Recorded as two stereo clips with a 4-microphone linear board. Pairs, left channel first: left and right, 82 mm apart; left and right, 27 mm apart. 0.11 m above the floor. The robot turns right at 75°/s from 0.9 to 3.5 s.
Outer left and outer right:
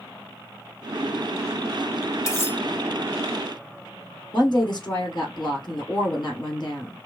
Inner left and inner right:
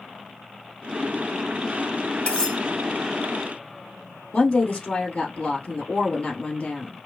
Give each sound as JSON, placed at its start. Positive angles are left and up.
{"t": 2.3, "sound": "cutlery clinking", "side_deg": 40, "distance_m": 1.5}
{"t": 4.3, "sound": "a woman speaking", "side_deg": 55, "distance_m": 2.5}